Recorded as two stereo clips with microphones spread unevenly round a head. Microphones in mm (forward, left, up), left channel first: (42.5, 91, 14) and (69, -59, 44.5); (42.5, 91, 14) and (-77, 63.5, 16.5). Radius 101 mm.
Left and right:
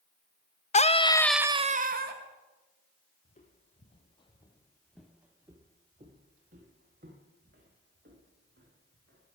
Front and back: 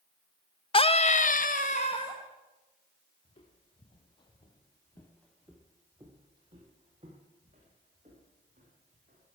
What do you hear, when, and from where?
0.7 s a scream: 60° left, 1.3 m; by 2.2 s 60° right, 1.3 m
3.2 s footsteps: 50° left, 2 m; by 9.2 s 115° right, 4.5 m